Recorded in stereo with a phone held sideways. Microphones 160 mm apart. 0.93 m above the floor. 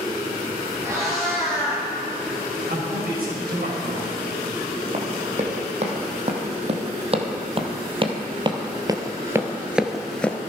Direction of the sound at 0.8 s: 20° right (ahead or behind).